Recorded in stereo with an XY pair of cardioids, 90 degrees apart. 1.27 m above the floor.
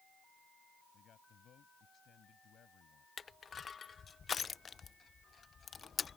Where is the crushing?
40° left.